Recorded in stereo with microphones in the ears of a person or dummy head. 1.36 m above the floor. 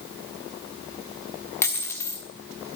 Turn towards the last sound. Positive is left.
turn(degrees=20)  # may be behind; listen again after turning